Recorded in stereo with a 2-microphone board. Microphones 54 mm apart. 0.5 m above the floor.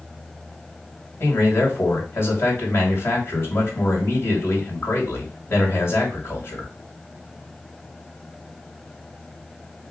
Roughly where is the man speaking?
Left.